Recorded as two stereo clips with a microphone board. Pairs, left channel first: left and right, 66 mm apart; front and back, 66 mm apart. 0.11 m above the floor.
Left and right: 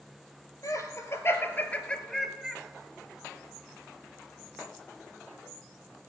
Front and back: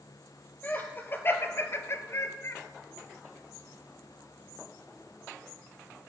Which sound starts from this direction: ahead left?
Laughter, at 0.6 s.